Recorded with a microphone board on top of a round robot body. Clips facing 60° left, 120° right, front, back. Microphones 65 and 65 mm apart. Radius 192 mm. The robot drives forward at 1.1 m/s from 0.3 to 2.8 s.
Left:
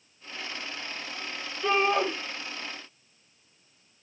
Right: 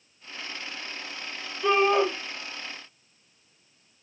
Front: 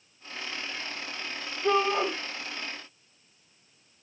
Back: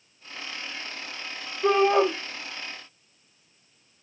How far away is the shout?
About 4.5 m.